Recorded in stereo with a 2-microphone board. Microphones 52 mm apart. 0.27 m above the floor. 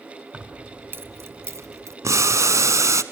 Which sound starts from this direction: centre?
Keys jangling, at 0.3 s.